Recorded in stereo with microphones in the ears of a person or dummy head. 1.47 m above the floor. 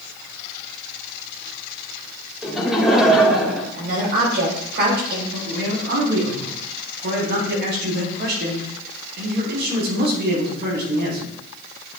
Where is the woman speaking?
60° right (ahead or behind), 4.5 m.